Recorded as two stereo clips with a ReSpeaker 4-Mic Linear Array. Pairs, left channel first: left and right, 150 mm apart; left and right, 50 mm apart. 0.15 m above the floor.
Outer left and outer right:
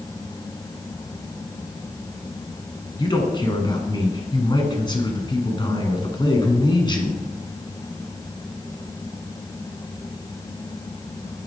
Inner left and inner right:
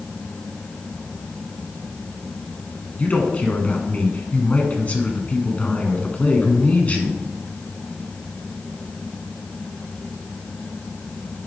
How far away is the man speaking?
About 1.1 m.